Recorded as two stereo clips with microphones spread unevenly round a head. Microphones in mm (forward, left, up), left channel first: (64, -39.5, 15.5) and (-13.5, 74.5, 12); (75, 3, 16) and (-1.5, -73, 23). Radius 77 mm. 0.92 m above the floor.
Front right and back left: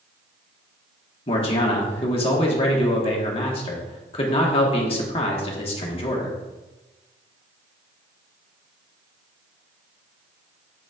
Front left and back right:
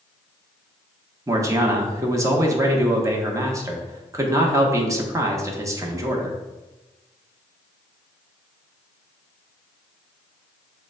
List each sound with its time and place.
1.3 s a man speaking: 85° right, 1.0 m